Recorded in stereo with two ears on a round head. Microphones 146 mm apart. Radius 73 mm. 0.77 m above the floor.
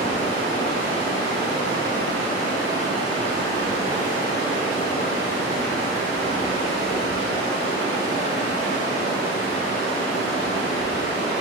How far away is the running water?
About 1.3 m.